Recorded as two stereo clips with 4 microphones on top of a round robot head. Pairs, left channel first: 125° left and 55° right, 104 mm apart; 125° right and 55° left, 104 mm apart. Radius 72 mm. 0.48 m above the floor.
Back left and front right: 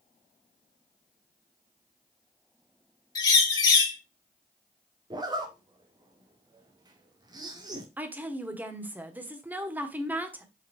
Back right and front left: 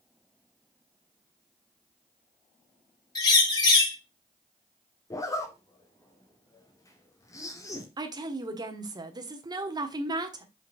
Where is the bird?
Straight behind, 2 m.